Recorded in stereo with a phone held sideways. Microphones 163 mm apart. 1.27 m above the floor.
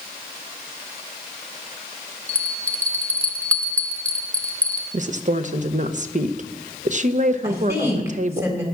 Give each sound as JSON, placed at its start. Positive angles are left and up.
{"t": 2.3, "sound": "a bell", "side_deg": 10, "distance_m": 1.2}
{"t": 4.9, "sound": "a woman speaking", "side_deg": -50, "distance_m": 0.9}
{"t": 7.4, "sound": "a woman speaking", "side_deg": -15, "distance_m": 3.5}